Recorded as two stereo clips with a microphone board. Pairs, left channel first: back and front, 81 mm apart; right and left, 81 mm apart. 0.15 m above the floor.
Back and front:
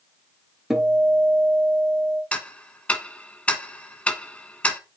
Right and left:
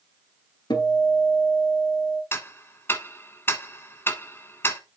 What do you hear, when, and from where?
0.7 s a guitar: 85° right, 1.6 m
2.3 s ticking: 120° right, 1.0 m